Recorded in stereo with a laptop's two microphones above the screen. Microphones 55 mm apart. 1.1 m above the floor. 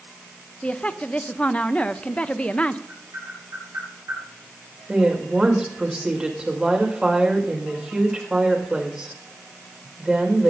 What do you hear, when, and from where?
0.6 s a woman speaking: 20° left (ahead or behind), 0.8 m
2.9 s tapping: 75° right (ahead or behind), 5.5 m
4.9 s a woman speaking: 15° right (ahead or behind), 5 m